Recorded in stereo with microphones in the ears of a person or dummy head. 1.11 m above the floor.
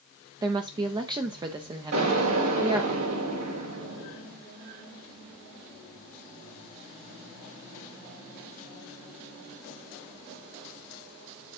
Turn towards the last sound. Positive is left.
turn(degrees=-80)